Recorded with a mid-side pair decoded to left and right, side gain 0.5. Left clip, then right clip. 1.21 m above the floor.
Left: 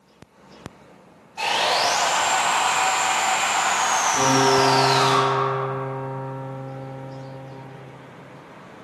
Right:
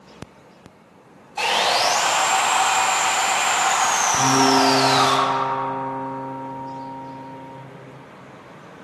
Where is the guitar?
40° left, 1.6 m.